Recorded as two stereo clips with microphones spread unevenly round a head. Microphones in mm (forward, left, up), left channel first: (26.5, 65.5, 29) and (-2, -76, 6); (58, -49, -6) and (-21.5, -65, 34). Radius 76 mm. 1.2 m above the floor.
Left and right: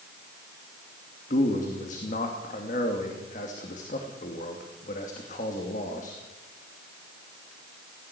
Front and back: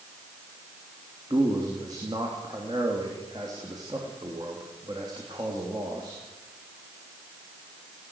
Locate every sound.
1.3 s a man speaking: 125° left, 2.5 m